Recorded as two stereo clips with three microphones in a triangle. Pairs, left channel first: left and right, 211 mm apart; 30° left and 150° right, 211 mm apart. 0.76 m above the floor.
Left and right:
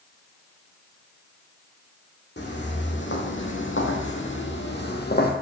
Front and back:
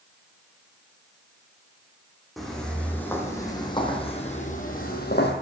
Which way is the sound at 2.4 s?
120° left.